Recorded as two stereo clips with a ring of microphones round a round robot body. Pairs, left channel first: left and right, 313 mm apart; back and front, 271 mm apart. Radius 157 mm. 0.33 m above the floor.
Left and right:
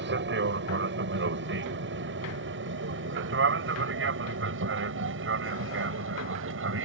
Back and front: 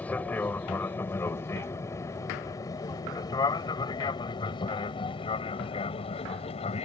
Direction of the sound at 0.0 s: 100° right.